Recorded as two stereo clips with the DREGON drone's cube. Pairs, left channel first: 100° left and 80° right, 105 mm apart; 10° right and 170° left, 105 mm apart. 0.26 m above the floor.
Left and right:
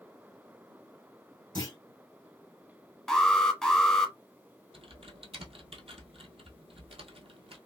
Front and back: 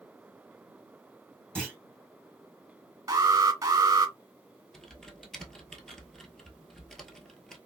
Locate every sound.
1.6 s a clunk: 65° left, 2.5 m
3.1 s an alarm: 175° right, 0.9 m
4.7 s typing on a keyboard: 95° right, 1.0 m